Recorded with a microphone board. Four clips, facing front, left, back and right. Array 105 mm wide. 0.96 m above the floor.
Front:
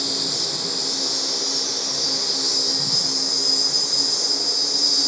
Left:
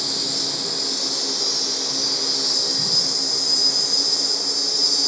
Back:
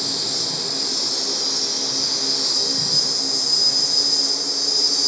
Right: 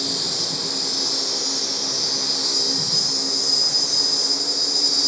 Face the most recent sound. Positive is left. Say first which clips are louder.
# even, front 1 dB
turn(degrees=-150)